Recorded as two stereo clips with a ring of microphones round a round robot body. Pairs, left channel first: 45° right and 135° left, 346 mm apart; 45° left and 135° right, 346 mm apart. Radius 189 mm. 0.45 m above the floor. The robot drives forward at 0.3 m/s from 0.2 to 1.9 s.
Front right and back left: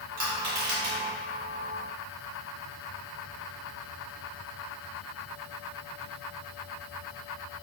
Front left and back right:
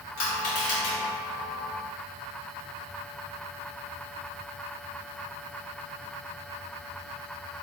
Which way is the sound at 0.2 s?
95° left.